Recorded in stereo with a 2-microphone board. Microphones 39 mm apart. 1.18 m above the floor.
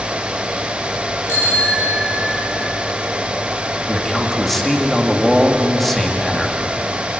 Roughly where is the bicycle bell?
Left.